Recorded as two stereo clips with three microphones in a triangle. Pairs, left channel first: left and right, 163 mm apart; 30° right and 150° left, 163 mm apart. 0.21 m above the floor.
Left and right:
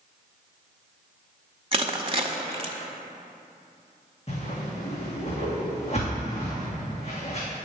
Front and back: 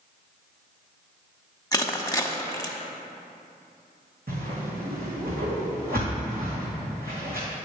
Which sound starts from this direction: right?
Crushing, at 1.7 s.